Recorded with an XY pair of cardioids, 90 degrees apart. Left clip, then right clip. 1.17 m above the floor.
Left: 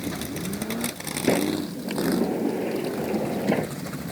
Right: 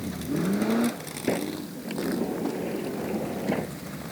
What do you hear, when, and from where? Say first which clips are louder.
1.3 s a sliding door: left 5 dB; 30° left